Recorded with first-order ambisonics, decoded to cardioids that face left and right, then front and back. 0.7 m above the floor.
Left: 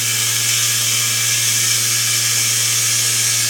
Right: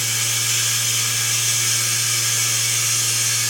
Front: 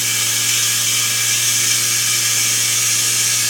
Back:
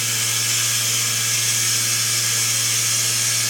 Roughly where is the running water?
Ahead left.